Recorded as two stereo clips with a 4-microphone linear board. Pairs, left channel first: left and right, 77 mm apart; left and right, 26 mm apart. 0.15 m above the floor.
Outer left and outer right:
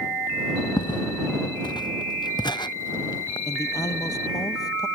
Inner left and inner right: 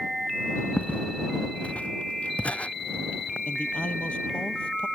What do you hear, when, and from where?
0.8 s footsteps: 80° left; by 3.4 s 75° left (ahead or behind)
3.5 s a man speaking: 55° left (ahead or behind)